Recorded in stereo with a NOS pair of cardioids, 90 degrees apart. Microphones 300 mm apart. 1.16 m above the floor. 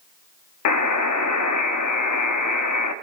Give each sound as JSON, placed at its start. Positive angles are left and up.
{"t": 0.7, "sound": "a buzzer", "azimuth_deg": 70, "distance_m": 1.8}